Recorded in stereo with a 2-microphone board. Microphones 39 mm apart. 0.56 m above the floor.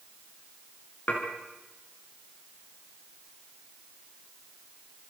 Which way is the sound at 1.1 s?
50° left (ahead or behind).